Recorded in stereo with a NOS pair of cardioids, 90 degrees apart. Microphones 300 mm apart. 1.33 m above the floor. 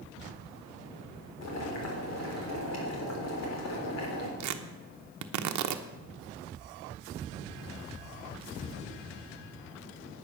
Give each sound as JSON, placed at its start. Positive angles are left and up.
{"t": 1.4, "sound": "boiling", "azimuth_deg": 60, "distance_m": 3.5}
{"t": 4.4, "sound": "tearing paper", "azimuth_deg": -70, "distance_m": 1.0}